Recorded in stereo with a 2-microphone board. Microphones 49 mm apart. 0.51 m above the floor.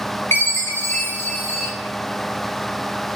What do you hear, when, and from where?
0.3 s a chime: 55° left (ahead or behind), 0.6 m